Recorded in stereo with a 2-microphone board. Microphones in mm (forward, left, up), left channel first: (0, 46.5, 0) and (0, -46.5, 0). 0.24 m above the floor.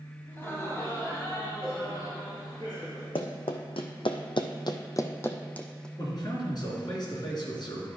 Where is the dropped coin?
I don't hear a dropped coin.